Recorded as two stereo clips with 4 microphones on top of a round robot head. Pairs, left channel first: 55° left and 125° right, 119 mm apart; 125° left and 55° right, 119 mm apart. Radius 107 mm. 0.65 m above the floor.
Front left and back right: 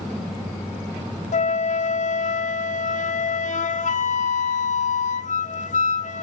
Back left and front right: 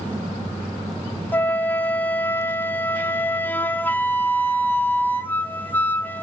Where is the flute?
50° left, 1.0 m.